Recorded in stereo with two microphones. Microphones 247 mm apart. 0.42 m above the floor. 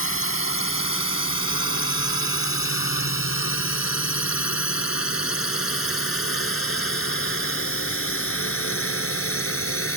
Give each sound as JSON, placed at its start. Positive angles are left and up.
{"t": 0.0, "sound": "a drone", "side_deg": 55}